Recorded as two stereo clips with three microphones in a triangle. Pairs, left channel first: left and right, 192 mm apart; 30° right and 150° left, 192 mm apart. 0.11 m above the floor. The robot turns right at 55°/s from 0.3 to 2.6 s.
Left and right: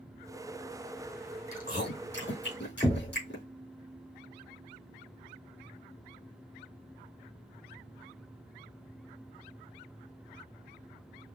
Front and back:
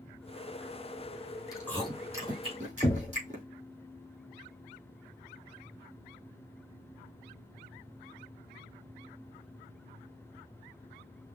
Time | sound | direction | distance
1.5 | chewing | 40° left | 3 m
2.8 | knocking | 40° left | 1.2 m